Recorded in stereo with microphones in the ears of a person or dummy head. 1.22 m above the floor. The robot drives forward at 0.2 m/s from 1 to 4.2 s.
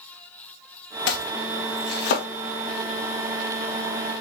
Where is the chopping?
65° left (ahead or behind), 1.3 m; by 2.3 s 60° left (ahead or behind), 1.4 m.